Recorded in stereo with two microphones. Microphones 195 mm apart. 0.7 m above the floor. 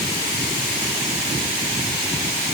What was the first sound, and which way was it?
Only background noise.